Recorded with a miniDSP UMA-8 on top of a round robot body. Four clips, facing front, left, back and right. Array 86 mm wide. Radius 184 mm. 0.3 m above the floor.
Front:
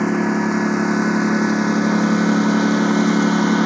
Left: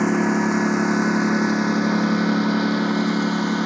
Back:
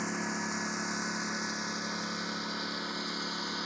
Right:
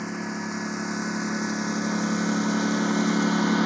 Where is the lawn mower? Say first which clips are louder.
Left 12 dB, front 17 dB; 40° left; by 3.7 s straight ahead.